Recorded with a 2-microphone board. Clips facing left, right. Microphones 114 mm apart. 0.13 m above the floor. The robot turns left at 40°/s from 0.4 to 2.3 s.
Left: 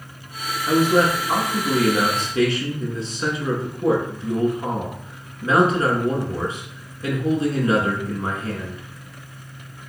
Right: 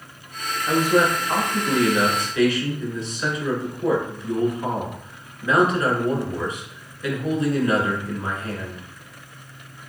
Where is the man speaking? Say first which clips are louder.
Left 2 dB; 150° left, 1.2 m; by 8.8 s 85° left, 1.2 m.